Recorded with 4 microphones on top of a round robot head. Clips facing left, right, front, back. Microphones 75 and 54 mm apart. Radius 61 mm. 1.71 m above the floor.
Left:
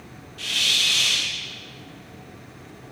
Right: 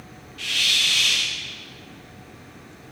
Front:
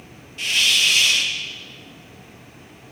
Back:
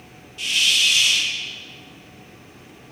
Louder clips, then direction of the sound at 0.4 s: Right 1 dB, front 1 dB; 30° left.